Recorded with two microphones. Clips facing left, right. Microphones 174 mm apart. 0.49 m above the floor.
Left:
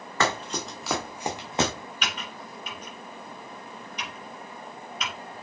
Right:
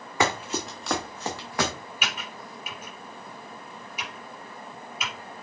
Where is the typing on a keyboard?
10° right (ahead or behind), 4 m.